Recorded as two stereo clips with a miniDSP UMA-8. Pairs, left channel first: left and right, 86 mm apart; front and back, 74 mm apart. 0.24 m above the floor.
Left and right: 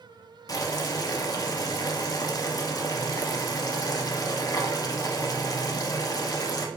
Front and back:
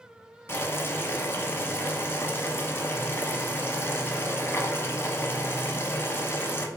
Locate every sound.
0.5 s boiling: 50° left, 0.5 m